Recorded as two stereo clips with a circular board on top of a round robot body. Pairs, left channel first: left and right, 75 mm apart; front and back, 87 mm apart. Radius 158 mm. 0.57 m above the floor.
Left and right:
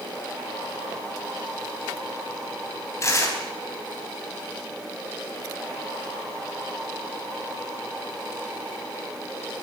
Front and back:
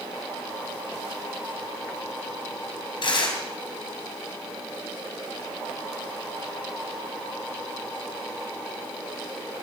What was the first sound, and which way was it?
Tearing paper, 35° left.